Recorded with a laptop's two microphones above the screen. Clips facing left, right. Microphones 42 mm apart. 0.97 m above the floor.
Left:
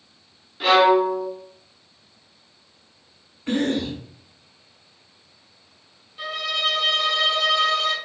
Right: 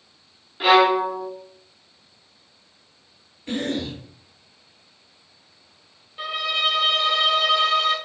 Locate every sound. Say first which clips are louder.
0.6 s a violin: even; 15° right (ahead or behind), 0.9 m
3.5 s a cough: left 4 dB; 60° left (ahead or behind), 1.6 m
6.2 s a violin: right 1 dB; 20° right (ahead or behind), 0.6 m